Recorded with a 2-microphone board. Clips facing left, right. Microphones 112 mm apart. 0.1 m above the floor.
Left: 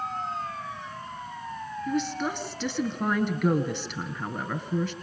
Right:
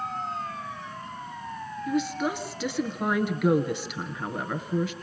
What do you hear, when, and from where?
1.9 s a woman speaking: 10° right (ahead or behind), 1.9 m